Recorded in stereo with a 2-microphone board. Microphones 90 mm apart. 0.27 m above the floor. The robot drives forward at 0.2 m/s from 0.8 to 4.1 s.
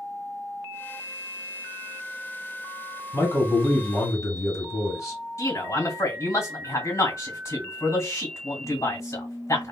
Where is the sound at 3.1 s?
30° left (ahead or behind), 1.8 m.